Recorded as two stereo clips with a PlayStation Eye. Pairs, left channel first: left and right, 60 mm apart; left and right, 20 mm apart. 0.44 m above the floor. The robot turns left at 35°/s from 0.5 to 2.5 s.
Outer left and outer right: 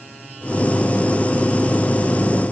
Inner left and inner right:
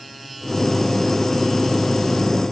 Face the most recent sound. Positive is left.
No sound to turn to.